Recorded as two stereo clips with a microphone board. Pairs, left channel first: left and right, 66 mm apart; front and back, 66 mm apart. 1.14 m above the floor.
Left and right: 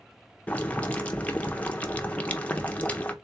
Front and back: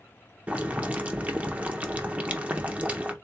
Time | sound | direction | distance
0.5 | boiling | 135° left | 0.5 m